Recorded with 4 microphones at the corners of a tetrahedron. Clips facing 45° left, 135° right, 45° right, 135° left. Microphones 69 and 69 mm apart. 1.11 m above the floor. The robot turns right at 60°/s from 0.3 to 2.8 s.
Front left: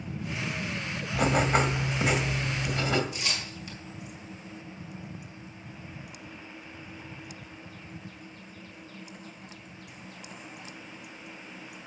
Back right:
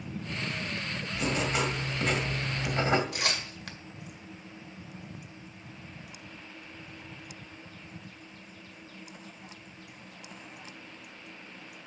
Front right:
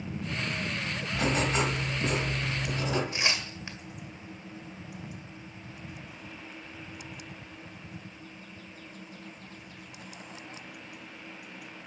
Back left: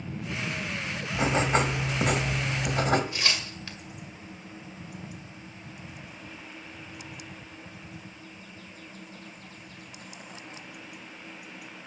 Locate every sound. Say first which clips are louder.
1.1 s writing: front left 6 dB, back left 3 dB; 70° left, 1.8 m; by 3.0 s 170° left, 1.8 m
3.1 s tearing paper: back right 2 dB, even; 115° right, 1.8 m